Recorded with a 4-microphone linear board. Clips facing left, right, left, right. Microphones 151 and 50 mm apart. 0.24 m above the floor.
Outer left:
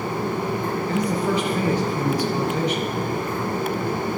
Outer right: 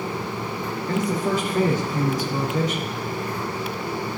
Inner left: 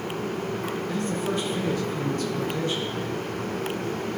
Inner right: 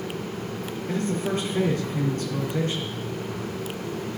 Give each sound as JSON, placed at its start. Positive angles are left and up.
{"t": 0.9, "sound": "a man speaking", "side_deg": -45, "distance_m": 3.5}